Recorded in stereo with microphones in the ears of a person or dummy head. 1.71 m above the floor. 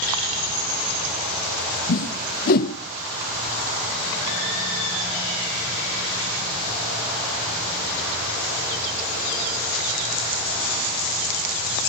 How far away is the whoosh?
About 0.5 m.